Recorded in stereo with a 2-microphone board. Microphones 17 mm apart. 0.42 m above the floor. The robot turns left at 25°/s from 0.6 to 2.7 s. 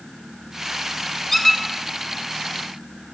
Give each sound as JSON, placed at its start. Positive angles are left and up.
{"t": 1.3, "sound": "a squeak", "side_deg": 20, "distance_m": 1.4}